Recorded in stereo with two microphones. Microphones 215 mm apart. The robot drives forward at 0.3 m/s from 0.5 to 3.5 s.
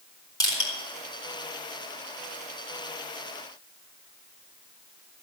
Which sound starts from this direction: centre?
Crushing, at 0.4 s.